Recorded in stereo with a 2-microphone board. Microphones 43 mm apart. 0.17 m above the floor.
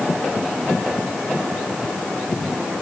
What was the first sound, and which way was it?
Only background noise.